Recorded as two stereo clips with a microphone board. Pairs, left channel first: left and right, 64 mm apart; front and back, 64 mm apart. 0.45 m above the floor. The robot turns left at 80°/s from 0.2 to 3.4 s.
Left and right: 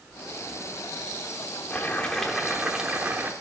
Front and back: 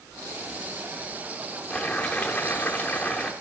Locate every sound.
1.7 s boiling: 65° left, 1.0 m; by 3.3 s 65° right, 1.0 m